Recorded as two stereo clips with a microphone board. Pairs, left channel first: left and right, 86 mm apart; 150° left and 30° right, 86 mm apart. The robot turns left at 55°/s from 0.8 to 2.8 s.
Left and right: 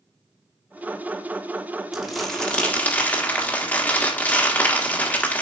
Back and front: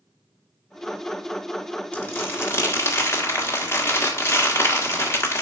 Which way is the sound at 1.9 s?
170° right.